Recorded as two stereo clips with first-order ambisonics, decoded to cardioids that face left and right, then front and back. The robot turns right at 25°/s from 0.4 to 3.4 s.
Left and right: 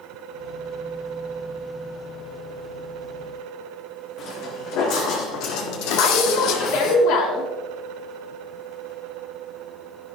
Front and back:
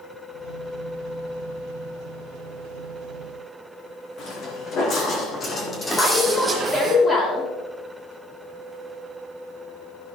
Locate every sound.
4.2 s footsteps: 55° left, 3 m; by 7.0 s 130° left, 1.5 m
6.0 s a woman speaking: 75° left, 4 m